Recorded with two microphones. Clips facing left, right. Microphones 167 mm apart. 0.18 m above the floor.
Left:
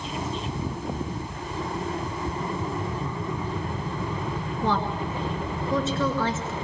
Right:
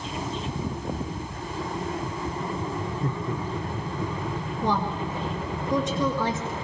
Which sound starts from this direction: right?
Laughter, at 3.0 s.